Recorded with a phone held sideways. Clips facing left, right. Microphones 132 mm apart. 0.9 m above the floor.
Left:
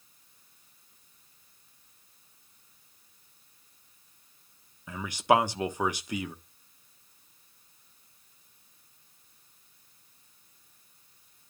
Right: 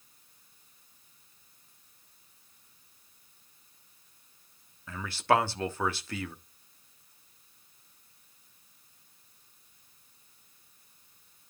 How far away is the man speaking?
About 1.3 m.